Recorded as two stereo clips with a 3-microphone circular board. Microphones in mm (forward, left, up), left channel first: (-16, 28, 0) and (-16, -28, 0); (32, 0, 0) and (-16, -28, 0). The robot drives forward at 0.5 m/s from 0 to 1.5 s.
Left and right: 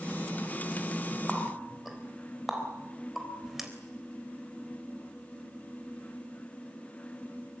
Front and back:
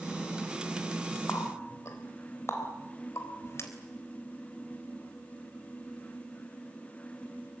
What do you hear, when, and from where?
1.3 s a running tap: straight ahead, 3.5 m; by 3.7 s 5° right, 3.5 m